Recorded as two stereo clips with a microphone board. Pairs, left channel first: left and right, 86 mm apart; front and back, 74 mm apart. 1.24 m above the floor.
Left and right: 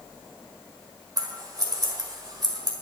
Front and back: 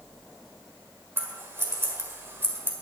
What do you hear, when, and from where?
1.2 s scissors: 125° right, 1.8 m